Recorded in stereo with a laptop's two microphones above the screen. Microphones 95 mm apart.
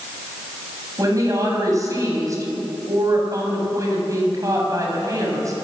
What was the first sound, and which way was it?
A woman speaking, 35° right (ahead or behind).